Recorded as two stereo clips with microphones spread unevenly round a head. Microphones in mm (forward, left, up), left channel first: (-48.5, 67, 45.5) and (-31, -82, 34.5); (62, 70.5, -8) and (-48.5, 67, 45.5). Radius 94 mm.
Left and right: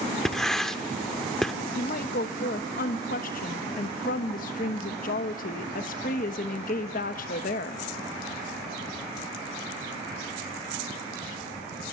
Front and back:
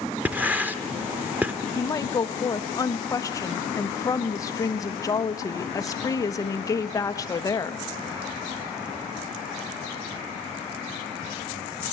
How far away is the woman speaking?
About 1.1 m.